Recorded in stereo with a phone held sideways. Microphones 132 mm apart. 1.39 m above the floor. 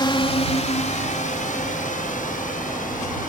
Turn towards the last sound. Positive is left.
turn(degrees=85)